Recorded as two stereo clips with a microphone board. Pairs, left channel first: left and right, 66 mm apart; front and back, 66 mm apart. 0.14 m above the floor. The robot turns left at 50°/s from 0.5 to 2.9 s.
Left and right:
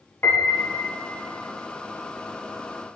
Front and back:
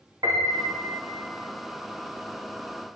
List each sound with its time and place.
0.2 s a piano: 150° left, 3 m; by 0.9 s 130° left, 3 m